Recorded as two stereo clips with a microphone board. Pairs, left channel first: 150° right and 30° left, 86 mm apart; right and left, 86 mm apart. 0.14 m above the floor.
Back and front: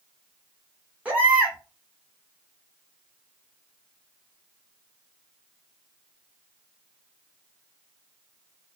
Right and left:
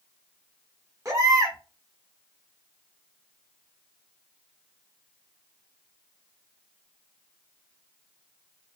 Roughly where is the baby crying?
Left.